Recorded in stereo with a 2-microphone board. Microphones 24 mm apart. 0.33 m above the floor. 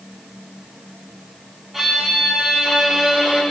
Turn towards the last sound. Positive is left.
turn(degrees=-20)  # may be behind; listen again after turning